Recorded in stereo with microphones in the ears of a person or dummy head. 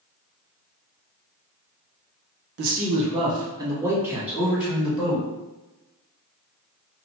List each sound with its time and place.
2.6 s a man speaking: 55° right (ahead or behind), 0.6 m; by 5.2 s 5° right (ahead or behind), 1.6 m